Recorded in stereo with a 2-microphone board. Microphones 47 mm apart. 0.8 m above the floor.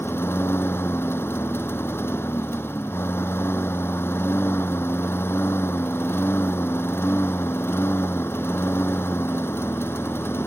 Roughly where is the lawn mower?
Left.